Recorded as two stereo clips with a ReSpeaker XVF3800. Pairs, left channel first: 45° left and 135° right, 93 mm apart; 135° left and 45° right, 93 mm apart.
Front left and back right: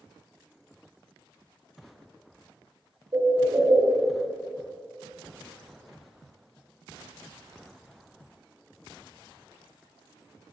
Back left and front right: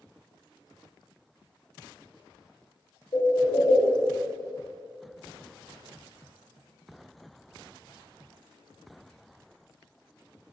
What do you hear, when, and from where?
3.1 s a bird: straight behind, 1.2 m